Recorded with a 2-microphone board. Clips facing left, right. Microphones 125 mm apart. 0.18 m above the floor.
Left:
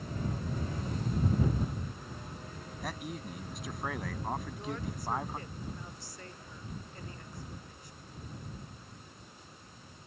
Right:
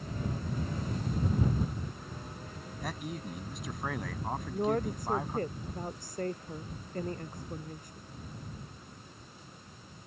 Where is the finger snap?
No finger snap in this recording.